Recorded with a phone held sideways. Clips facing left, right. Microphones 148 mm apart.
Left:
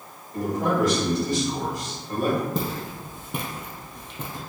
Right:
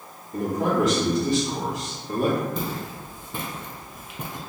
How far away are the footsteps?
About 1.4 m.